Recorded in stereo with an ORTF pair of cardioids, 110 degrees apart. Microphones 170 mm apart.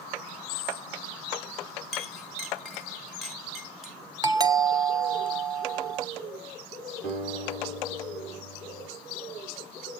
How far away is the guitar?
About 8 m.